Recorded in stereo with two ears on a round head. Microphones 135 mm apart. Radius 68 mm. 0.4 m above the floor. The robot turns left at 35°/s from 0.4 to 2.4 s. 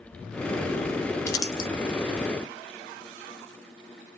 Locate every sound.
1.3 s crumpling: 20° left (ahead or behind), 0.6 m; by 1.7 s 35° left (ahead or behind), 0.6 m